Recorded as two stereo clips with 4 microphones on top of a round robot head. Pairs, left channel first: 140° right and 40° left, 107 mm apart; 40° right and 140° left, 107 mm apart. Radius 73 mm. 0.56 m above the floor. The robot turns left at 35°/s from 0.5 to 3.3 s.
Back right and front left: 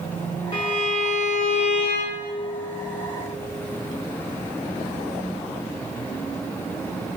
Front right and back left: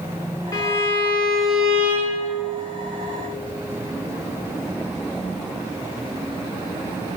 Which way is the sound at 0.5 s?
100° right.